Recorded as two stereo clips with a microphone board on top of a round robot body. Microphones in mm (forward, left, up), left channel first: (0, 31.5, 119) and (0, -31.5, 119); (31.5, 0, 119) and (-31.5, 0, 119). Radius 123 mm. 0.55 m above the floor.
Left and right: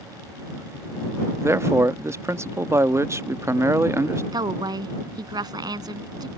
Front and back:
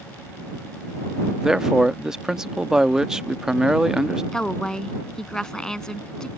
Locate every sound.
1.4 s a man speaking: 100° right
4.3 s a woman speaking: 80° right